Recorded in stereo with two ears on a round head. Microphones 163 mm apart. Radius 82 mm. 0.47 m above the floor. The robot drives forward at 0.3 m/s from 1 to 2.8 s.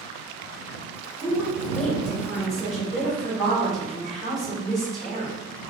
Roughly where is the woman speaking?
Centre.